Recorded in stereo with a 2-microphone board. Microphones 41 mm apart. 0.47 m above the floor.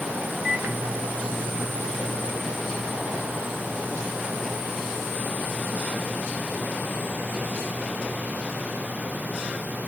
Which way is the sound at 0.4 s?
25° right (ahead or behind).